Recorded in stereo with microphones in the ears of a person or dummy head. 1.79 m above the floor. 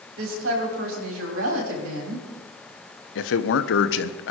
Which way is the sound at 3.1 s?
70° left (ahead or behind).